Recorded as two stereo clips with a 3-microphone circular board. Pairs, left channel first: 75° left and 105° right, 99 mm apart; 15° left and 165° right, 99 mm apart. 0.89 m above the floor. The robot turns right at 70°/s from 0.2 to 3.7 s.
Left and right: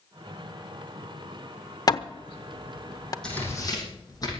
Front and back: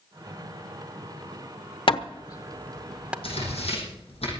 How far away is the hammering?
About 0.8 m.